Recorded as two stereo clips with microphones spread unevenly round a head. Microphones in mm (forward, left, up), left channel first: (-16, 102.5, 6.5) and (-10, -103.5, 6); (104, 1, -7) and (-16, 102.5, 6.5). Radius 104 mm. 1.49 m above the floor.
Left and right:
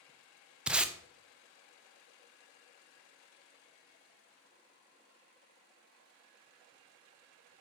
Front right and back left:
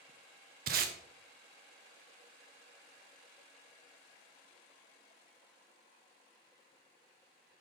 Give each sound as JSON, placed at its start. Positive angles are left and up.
{"t": 0.7, "sound": "tape being pulled", "azimuth_deg": -175, "distance_m": 0.6}